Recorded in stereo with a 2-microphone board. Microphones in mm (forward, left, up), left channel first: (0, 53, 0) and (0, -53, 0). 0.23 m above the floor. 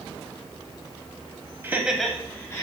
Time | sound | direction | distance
1.6 | laughter | 20° right (ahead or behind) | 1.1 m